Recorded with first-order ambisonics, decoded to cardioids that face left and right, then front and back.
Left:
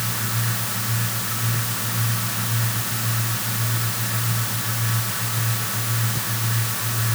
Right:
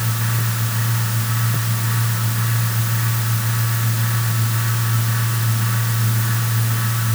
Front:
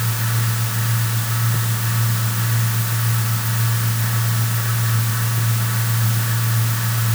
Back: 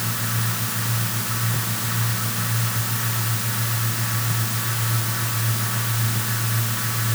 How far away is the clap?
No clap in this recording.